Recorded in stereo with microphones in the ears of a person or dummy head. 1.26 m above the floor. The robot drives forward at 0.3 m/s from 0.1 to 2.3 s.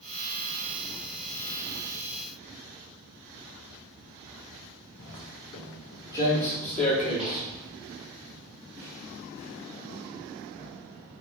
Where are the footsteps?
40° left (ahead or behind), 2.5 m; by 10.7 s 45° right (ahead or behind), 4 m.